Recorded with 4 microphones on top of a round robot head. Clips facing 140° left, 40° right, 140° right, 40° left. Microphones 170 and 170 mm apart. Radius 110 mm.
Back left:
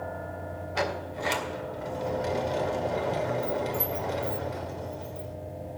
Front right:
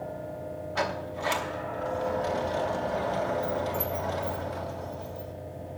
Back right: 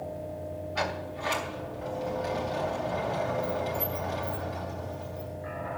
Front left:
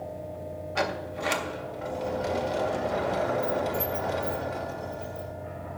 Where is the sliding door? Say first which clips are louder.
Back left 1 dB, front left 5 dB; 70° left, 1.9 m.